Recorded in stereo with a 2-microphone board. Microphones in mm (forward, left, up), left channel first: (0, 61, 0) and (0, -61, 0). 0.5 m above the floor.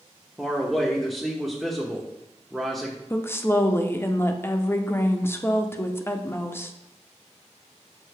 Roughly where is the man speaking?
Centre.